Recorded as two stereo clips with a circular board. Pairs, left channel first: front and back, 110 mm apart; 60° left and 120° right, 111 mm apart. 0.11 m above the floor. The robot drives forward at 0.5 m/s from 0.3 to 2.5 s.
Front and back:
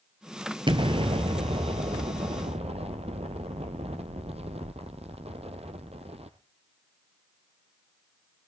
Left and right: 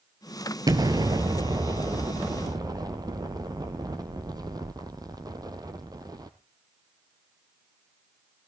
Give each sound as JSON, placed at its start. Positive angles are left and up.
{"t": 0.7, "sound": "an explosion", "azimuth_deg": -160, "distance_m": 0.9}